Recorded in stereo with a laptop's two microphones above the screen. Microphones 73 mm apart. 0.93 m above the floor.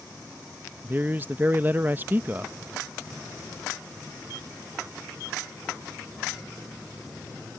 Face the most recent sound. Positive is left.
turn(degrees=-25)  # may be behind; listen again after turning